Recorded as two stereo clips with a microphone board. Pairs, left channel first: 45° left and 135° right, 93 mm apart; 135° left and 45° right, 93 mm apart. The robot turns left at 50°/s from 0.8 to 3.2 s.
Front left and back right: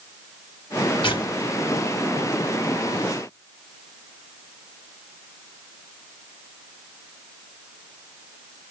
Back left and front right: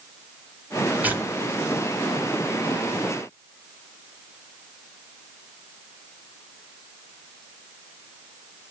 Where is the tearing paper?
30° left, 1.8 m; by 3.0 s 75° right, 1.8 m.